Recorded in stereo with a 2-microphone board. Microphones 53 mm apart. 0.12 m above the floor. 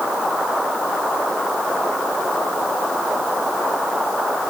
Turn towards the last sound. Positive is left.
No sound to turn to.